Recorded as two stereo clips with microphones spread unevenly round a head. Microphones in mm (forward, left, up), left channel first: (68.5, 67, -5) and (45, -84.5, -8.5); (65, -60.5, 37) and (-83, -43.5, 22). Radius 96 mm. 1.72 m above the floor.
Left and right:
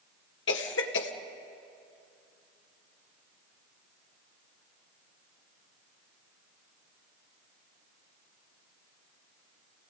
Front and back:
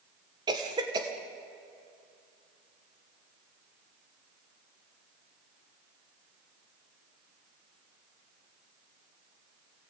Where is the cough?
105° left, 1.9 m.